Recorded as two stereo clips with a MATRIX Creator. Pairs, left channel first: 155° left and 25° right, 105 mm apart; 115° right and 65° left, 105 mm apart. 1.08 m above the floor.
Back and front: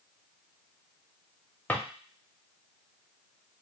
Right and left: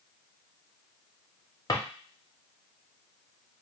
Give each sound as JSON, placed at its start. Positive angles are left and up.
{"t": 1.7, "sound": "a drawer", "azimuth_deg": -135, "distance_m": 0.6}